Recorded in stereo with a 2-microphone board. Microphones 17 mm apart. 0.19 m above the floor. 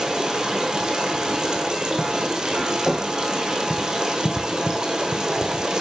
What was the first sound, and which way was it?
Running water, 55° right (ahead or behind).